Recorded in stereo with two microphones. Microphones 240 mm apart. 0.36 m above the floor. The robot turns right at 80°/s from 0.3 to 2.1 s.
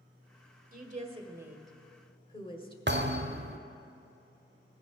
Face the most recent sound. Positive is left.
turn(degrees=-50)  # may be behind; listen again after turning